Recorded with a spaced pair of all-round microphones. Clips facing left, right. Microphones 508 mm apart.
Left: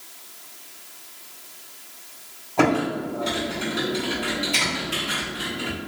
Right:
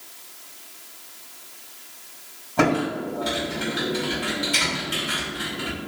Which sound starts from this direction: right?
Typing on a keyboard, at 2.6 s.